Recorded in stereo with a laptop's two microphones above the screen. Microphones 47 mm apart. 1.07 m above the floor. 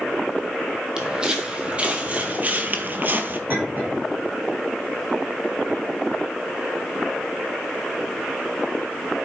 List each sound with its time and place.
1.0 s footsteps: 15° right (ahead or behind), 1.9 m; by 3.4 s 40° right (ahead or behind), 1.3 m
3.5 s a clink: 35° right (ahead or behind), 6 m